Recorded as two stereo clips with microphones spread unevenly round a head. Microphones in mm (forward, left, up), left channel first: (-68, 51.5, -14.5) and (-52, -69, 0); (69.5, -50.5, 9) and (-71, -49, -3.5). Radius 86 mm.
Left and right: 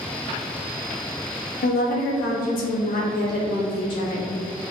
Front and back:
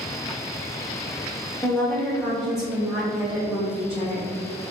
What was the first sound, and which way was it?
A woman speaking, 75° left.